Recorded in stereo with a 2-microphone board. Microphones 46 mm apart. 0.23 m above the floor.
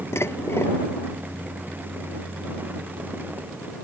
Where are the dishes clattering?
75° left (ahead or behind).